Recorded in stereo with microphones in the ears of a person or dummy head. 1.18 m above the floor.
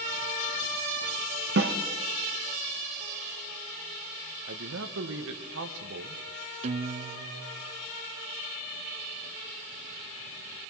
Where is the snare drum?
55° right (ahead or behind), 1.5 m.